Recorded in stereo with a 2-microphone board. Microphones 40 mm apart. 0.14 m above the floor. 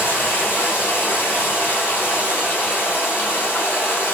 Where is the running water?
60° left (ahead or behind), 1.5 m.